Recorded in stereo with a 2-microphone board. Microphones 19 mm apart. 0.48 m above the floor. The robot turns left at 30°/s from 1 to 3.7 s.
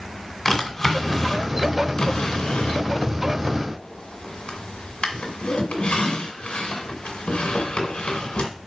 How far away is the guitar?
I don't hear a guitar.